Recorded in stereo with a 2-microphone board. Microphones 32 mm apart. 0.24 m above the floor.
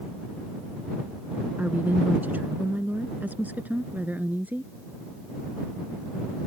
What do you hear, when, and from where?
1.6 s a woman speaking: 65° right (ahead or behind)